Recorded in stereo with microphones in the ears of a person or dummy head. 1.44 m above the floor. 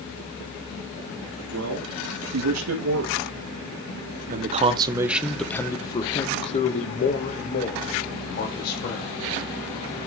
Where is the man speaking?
85° right, 2 m; by 9.2 s 50° left (ahead or behind), 3 m.